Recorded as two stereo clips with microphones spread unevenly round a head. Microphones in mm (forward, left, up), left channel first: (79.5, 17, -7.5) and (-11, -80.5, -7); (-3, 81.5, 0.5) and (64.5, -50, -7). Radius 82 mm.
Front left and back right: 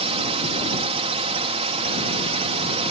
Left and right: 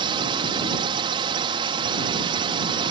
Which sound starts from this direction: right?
A drone, at 0.0 s.